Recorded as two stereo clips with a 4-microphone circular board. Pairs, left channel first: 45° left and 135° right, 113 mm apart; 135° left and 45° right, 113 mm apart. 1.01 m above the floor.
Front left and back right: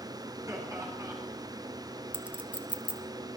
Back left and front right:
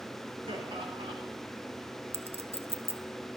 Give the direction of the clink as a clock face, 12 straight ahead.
2 o'clock.